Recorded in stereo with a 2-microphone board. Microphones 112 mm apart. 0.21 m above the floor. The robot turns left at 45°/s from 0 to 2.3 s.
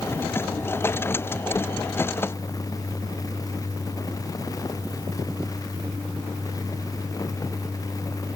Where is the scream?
I don't hear a scream.